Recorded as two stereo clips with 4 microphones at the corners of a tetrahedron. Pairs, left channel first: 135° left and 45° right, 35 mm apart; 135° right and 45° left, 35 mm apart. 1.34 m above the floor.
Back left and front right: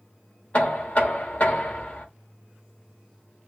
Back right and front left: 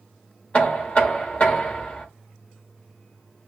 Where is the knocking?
Straight behind, 1.4 m.